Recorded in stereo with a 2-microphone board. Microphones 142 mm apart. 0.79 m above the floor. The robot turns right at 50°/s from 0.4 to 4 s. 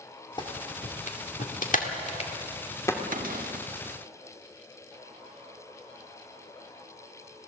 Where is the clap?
35° left (ahead or behind), 2 m; by 3.0 s 15° left (ahead or behind), 2 m.